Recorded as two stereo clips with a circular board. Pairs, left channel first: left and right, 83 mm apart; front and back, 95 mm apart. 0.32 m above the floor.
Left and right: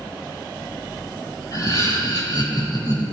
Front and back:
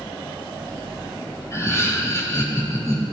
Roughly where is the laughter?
Ahead left.